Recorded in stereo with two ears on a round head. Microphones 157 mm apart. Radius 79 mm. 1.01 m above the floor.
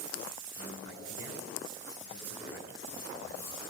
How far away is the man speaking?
About 9 m.